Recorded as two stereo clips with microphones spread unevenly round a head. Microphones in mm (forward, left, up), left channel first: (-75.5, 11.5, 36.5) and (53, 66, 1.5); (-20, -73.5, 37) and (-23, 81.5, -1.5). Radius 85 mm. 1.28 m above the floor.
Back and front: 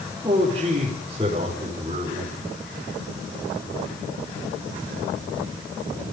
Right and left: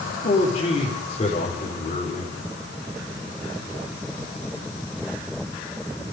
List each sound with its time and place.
0.2 s a man speaking: 40° right, 4.5 m